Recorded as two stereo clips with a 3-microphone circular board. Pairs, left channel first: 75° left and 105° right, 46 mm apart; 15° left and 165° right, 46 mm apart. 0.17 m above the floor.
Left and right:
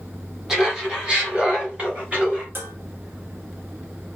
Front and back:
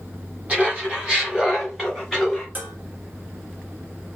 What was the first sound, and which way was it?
Laughter, 170° right.